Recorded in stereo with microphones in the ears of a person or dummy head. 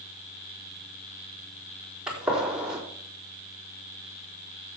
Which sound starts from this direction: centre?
A gunshot, at 2.1 s.